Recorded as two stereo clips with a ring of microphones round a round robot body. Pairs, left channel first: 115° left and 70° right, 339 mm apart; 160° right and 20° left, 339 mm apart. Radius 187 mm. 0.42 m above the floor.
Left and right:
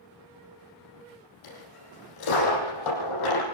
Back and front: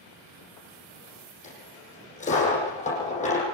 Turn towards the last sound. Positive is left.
turn(degrees=135)